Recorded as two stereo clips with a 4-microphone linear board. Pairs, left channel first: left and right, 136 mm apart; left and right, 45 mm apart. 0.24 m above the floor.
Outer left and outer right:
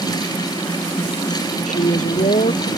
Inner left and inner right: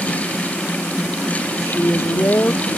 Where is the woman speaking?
65° left (ahead or behind).